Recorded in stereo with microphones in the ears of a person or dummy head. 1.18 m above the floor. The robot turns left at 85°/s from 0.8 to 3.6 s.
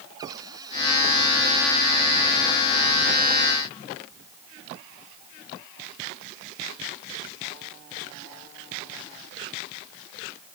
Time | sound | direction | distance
0.2 | a cupboard door | 15° right | ?